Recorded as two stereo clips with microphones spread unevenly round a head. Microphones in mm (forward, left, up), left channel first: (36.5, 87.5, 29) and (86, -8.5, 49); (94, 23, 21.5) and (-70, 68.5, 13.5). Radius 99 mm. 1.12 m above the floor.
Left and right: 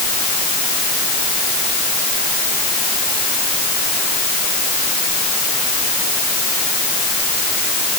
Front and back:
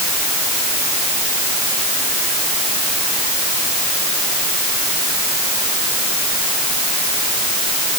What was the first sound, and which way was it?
Only background noise.